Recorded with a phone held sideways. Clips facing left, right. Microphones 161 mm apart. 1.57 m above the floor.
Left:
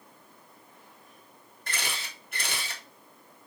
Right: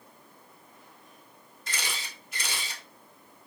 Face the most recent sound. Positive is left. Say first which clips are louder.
# left 1 dB
turn(degrees=60)  # may be behind; listen again after turning